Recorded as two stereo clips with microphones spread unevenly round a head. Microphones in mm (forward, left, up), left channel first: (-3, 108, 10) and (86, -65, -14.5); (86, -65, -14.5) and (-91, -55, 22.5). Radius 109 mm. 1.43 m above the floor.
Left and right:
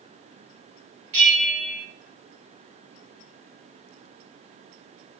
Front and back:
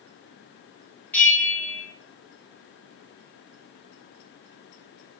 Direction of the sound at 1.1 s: 85° right.